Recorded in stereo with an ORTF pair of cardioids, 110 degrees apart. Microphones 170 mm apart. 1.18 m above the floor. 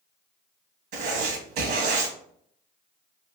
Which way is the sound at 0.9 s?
70° right.